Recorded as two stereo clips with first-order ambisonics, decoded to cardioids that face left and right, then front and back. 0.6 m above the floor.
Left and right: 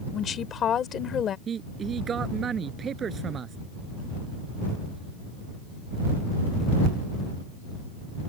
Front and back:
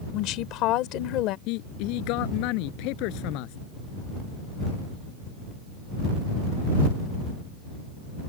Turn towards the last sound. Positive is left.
turn(degrees=-25)